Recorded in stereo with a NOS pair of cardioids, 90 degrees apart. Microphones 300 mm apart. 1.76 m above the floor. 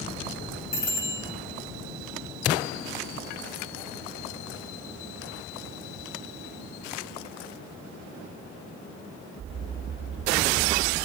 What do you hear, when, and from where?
0.7 s a bicycle bell: 70° left, 7 m